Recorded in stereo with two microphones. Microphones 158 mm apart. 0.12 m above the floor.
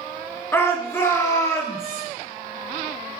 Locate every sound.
0.5 s a shout: 15° left (ahead or behind), 1.2 m; by 2.0 s 20° left (ahead or behind), 2 m